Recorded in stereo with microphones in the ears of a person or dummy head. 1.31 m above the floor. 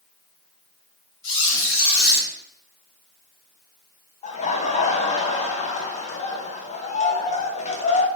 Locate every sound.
1.2 s a squeak: 65° left (ahead or behind), 1.4 m
4.2 s laughter: 30° left (ahead or behind), 0.6 m